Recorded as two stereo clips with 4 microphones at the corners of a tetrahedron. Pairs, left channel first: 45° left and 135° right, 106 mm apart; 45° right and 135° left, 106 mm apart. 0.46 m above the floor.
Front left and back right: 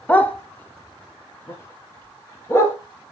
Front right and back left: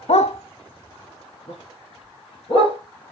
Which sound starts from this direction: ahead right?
A dog barking, at 0.1 s.